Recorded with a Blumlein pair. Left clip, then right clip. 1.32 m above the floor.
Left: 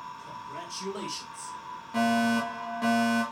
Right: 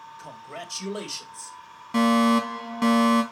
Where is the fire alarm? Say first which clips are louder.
Right 5 dB; 65° right, 2.5 m.